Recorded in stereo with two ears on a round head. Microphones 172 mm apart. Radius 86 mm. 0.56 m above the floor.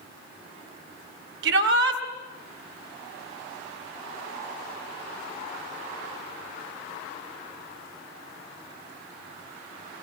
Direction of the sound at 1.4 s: 70° right (ahead or behind).